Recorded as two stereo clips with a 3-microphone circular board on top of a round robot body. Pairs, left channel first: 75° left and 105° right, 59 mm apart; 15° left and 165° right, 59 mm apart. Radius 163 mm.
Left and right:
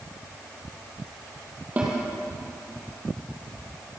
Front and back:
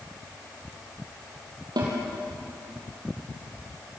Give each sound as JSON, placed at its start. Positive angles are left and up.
{"t": 1.8, "sound": "a snare drum", "azimuth_deg": -175, "distance_m": 5.5}